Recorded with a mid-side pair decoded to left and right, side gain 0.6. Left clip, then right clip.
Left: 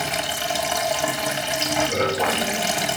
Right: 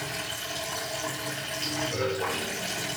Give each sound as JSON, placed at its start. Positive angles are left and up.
{"t": 0.0, "sound": "running water", "azimuth_deg": 70, "distance_m": 3.0}